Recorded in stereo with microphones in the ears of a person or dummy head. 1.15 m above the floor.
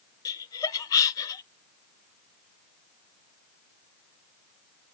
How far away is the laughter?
About 0.7 m.